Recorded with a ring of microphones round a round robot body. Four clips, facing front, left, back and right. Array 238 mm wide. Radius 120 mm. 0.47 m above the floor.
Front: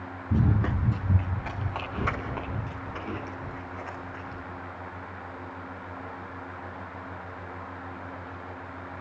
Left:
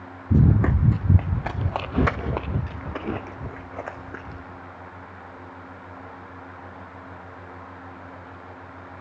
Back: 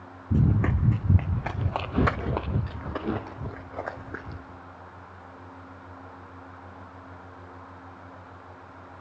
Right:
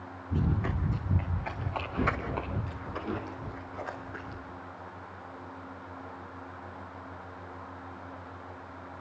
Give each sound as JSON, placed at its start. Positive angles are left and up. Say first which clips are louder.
{"t": 0.3, "sound": "running footsteps", "louder": "left 11 dB, back 2 dB", "azimuth_deg": 95, "distance_m": 1.8}